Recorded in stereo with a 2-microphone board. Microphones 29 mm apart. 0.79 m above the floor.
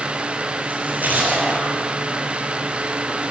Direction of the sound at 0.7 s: 70° right (ahead or behind).